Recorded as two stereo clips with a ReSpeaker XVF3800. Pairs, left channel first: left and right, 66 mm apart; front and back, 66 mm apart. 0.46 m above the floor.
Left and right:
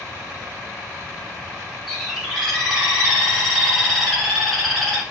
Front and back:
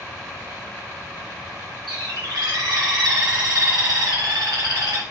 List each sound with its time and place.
1.9 s a bird: 175° left, 1.8 m